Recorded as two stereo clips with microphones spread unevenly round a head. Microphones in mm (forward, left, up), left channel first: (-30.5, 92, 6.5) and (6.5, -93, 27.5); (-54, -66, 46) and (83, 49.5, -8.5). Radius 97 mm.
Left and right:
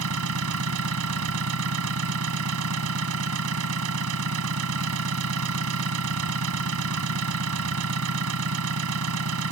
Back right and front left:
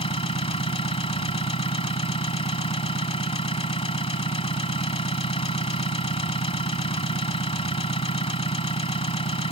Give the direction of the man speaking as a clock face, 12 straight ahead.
No man speaking in this recording.